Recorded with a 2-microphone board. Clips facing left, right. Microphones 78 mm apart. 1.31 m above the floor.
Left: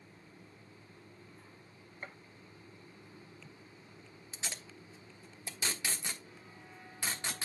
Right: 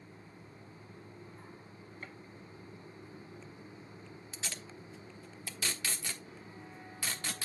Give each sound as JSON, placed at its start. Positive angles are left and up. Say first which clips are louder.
{"t": 2.0, "sound": "a gunshot", "louder": "left 3 dB", "side_deg": 25, "distance_m": 0.7}
{"t": 4.3, "sound": "tape being pulled", "louder": "even", "side_deg": 20, "distance_m": 1.1}